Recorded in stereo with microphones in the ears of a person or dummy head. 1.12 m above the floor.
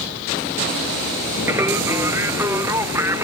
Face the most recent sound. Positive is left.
turn(degrees=-10)  # may be behind; listen again after turning